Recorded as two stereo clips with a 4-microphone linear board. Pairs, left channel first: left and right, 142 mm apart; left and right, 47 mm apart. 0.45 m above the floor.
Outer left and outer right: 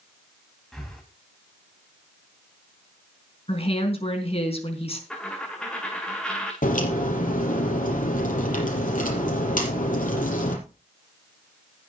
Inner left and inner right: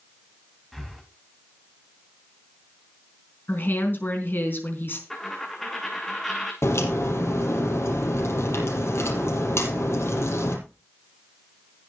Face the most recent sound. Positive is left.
turn(degrees=65)  # may be behind; listen again after turning